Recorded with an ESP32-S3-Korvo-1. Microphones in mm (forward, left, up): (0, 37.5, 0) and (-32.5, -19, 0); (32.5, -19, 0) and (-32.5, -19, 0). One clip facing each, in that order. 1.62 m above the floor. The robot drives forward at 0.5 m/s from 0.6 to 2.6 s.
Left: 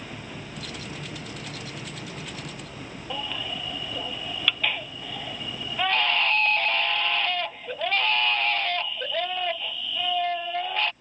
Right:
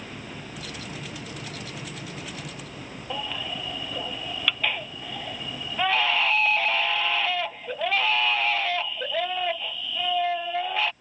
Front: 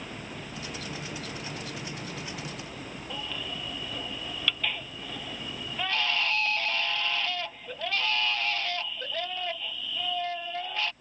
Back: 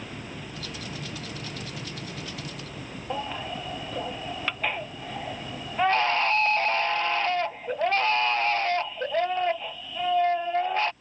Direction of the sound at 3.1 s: 160° left.